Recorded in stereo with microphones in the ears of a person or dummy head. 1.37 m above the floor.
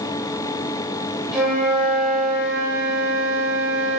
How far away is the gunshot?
I don't hear a gunshot.